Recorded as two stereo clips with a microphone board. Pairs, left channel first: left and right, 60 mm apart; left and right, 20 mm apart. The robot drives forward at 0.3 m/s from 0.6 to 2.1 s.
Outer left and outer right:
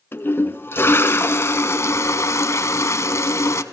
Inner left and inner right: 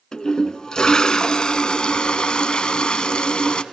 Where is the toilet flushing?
40° left (ahead or behind), 1.2 m; by 3.6 s 55° left (ahead or behind), 0.9 m.